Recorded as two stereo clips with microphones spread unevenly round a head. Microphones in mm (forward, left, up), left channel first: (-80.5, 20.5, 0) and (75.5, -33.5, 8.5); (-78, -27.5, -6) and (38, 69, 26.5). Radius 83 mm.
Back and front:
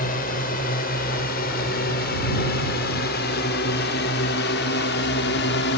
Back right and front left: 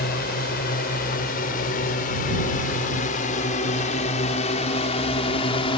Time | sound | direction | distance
0.0 | a drone | 160° right | ?